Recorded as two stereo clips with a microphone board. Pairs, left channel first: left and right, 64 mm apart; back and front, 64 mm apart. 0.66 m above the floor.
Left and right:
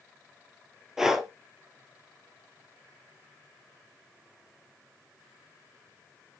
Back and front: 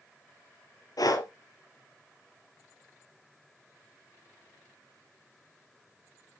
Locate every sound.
1.0 s breathing: 175° right, 2 m